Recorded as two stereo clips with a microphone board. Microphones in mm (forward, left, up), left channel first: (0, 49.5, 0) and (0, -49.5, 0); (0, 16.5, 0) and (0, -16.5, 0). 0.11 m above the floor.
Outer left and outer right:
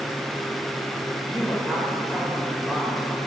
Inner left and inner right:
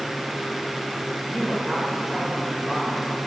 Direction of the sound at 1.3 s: Centre (ahead or behind).